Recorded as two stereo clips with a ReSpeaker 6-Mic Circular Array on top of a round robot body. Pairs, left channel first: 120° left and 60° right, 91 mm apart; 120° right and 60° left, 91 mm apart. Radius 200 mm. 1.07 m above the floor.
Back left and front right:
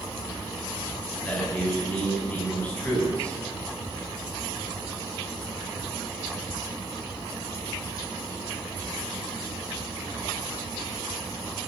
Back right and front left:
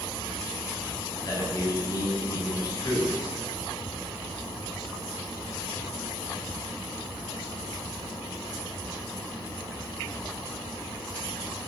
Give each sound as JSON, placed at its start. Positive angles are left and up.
{"t": 1.2, "sound": "a man speaking", "azimuth_deg": -165, "distance_m": 9.5}